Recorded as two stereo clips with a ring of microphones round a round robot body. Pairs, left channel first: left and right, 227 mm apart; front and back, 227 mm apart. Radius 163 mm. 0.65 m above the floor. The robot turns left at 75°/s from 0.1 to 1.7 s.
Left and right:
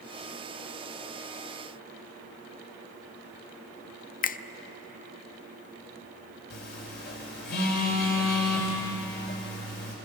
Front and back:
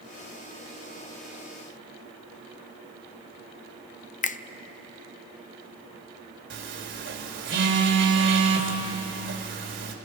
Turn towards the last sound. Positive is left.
turn(degrees=145)